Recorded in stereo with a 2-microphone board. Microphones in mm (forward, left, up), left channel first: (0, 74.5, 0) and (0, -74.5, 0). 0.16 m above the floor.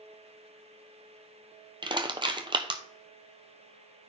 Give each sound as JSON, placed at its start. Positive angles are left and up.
{"t": 1.8, "sound": "crushing", "side_deg": -35, "distance_m": 0.8}